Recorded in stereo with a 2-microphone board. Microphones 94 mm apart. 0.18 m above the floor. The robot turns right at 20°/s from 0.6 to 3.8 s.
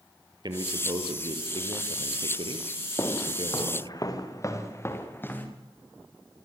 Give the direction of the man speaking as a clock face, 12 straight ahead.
4 o'clock.